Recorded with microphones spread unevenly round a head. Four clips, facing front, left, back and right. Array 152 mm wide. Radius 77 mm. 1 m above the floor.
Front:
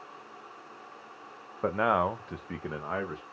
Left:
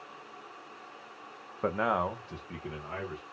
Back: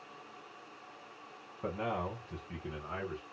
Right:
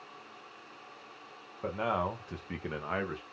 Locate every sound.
1.6 s a man speaking: 30° left, 0.5 m; by 3.2 s 35° right, 0.9 m